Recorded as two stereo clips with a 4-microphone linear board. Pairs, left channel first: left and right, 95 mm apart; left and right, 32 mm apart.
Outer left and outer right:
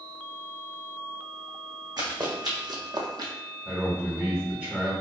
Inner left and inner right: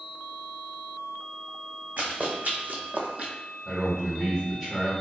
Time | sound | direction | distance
2.0 | running footsteps | 55° right (ahead or behind) | 1.2 m
3.6 | a man speaking | 15° right (ahead or behind) | 1.3 m